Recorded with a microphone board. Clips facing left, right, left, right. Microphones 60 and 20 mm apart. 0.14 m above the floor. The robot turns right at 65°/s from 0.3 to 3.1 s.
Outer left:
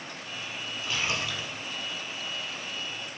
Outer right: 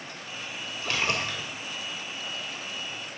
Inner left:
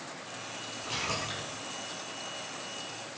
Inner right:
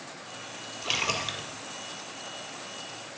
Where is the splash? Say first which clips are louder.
Outer right 3 dB, inner right 6 dB; 85° right, 1.9 m; by 1.5 s 40° right, 1.9 m.